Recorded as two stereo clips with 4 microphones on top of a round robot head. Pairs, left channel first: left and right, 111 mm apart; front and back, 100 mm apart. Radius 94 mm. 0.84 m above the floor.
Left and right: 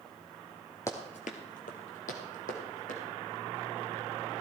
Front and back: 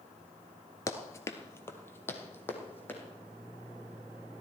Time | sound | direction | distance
0.9 | running footsteps | 30° left | 0.9 m